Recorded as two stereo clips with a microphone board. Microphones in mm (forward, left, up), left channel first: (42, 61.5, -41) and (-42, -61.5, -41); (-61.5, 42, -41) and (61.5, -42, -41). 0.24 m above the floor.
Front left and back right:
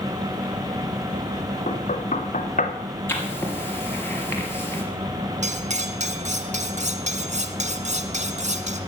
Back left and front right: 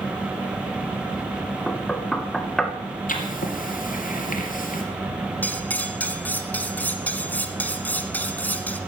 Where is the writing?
130° left, 3 m.